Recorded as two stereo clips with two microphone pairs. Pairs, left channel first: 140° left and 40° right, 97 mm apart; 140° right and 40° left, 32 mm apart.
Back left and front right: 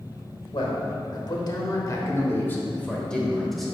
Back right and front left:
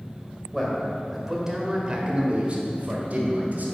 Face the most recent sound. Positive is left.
turn(degrees=50)